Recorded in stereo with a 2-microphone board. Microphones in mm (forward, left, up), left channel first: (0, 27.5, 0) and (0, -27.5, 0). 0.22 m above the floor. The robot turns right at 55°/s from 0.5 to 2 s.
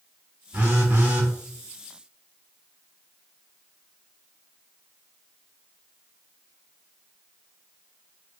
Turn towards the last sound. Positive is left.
turn(degrees=-15)